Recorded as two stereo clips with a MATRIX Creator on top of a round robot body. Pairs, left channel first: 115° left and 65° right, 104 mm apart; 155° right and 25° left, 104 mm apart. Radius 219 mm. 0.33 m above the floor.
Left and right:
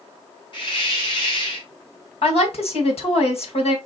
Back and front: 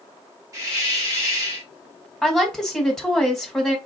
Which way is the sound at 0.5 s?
80° left.